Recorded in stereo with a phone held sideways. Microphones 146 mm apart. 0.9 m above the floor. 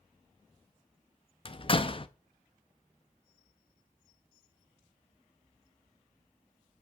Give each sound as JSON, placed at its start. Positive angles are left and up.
{"t": 1.4, "sound": "a door slam", "side_deg": 40, "distance_m": 0.6}